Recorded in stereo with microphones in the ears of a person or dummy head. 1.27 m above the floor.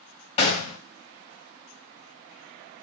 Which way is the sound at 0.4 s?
40° left (ahead or behind).